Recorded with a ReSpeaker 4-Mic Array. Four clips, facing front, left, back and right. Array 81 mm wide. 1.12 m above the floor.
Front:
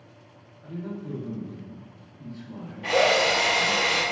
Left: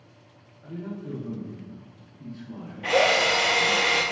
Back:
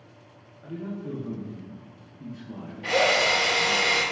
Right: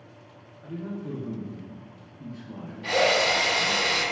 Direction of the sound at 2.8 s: 85° left.